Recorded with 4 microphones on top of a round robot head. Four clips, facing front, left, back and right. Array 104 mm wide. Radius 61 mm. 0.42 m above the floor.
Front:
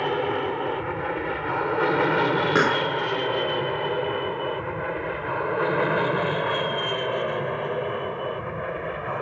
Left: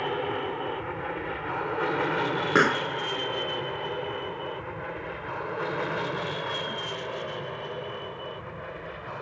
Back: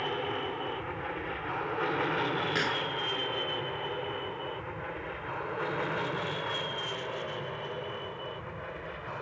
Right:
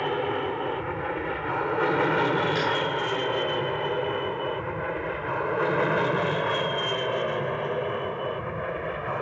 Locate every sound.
0.0 s an aircraft: 15° right; by 9.2 s 40° right
2.5 s a pop: 45° left